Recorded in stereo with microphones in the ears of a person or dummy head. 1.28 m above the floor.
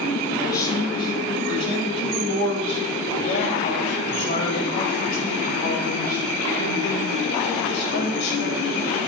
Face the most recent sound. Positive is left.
turn(degrees=75)  # may be behind; listen again after turning